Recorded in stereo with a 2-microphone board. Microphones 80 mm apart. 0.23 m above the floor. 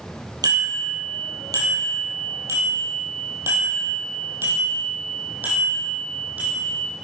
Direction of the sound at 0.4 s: 50° right (ahead or behind).